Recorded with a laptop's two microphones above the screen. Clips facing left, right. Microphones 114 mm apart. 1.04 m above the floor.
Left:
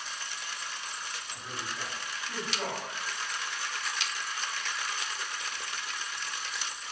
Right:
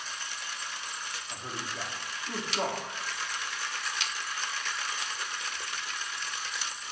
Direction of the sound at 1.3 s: 45° right (ahead or behind).